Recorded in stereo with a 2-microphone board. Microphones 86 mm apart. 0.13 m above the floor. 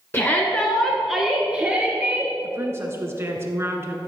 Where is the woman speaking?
30° right (ahead or behind), 1.2 m.